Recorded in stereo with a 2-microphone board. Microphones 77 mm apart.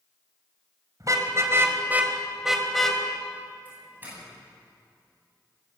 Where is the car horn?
50° right (ahead or behind), 2.5 m; by 3.0 s 10° left (ahead or behind), 3 m.